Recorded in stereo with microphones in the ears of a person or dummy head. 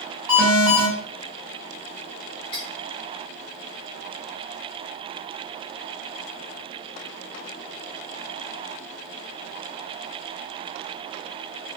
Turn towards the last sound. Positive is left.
turn(degrees=-30)  # may be behind; listen again after turning